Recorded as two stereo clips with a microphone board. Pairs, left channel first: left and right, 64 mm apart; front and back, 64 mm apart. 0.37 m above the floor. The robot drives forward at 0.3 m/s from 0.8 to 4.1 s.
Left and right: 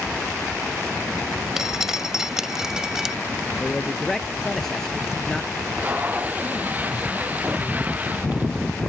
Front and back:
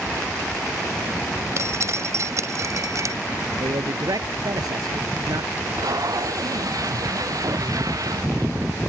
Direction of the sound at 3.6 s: 175° left.